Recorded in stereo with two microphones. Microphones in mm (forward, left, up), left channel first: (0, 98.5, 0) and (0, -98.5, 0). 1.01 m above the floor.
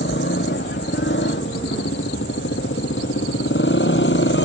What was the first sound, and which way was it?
A motorcycle, 75° left (ahead or behind).